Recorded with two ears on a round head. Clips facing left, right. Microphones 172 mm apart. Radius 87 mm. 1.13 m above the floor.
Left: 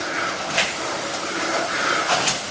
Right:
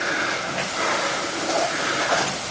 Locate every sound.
Only background noise.